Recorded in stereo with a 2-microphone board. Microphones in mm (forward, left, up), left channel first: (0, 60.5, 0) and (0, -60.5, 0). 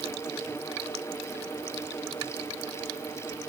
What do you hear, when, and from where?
Only background noise.